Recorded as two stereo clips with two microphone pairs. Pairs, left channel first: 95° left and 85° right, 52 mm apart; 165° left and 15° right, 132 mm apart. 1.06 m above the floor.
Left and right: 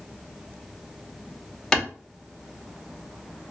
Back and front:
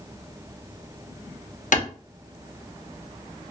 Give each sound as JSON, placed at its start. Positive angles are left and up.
{"t": 1.7, "sound": "a clap", "azimuth_deg": 165, "distance_m": 0.7}